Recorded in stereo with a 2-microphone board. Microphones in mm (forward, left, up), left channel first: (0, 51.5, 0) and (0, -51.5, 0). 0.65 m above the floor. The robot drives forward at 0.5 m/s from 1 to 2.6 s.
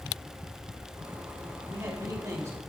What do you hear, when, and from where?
1.7 s a man speaking: 30° right (ahead or behind), 3.5 m; by 2.6 s 35° right (ahead or behind), 3 m